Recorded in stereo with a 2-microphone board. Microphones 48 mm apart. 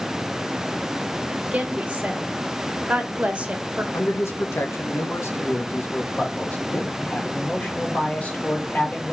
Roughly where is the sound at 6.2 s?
Left.